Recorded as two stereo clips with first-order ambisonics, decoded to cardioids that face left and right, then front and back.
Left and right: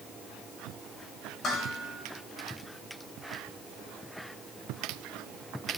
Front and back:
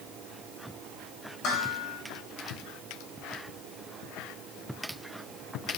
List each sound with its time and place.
1.4 s dishes clattering: 30° left, 2.5 m